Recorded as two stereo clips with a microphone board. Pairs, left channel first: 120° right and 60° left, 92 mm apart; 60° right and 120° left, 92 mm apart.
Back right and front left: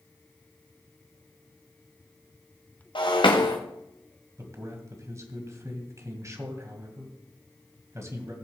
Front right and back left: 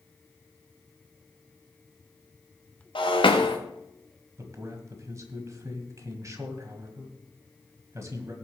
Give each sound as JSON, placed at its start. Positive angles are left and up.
{"t": 3.0, "sound": "breaking glass", "azimuth_deg": -85, "distance_m": 2.0}
{"t": 4.4, "sound": "a man speaking", "azimuth_deg": 95, "distance_m": 1.9}